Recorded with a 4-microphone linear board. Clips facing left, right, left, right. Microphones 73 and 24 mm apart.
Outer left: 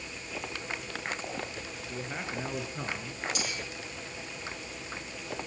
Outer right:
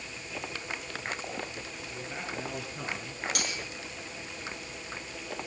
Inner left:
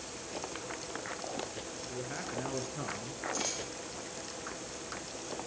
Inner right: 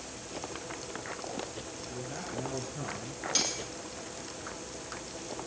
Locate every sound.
1.8 s a man speaking: 30° left (ahead or behind), 4.5 m; by 3.2 s 10° left (ahead or behind), 3.5 m
3.4 s cutlery clinking: 65° right (ahead or behind), 6 m